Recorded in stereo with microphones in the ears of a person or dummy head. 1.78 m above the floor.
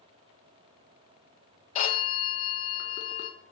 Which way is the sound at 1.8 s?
40° left (ahead or behind).